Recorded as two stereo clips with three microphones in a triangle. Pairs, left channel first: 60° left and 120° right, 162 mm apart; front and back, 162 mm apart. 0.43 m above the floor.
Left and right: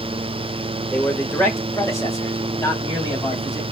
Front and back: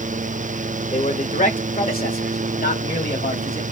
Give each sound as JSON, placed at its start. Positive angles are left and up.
{"t": 0.9, "sound": "a man speaking", "azimuth_deg": -15, "distance_m": 1.1}